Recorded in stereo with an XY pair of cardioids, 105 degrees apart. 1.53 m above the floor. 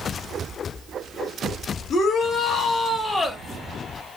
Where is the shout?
55° left, 1.4 m; by 3.4 s 20° left, 1.1 m.